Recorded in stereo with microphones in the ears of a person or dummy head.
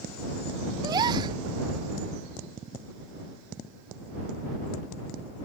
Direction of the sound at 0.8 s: 25° right (ahead or behind).